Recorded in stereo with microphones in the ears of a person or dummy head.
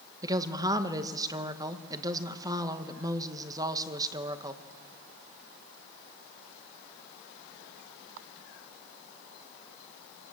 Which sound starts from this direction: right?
A woman speaking, at 0.2 s.